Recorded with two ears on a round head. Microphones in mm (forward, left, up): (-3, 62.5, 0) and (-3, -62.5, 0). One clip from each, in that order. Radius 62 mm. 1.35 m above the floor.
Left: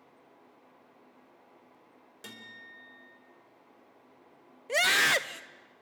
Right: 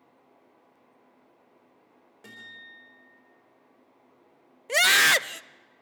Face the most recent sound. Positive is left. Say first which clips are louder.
# right 5 dB
turn(degrees=-25)  # may be behind; listen again after turning